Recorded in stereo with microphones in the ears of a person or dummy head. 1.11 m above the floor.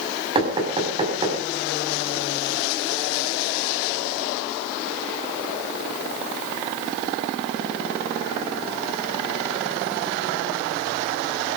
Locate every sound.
0.3 s knocking: 25° right (ahead or behind), 5 m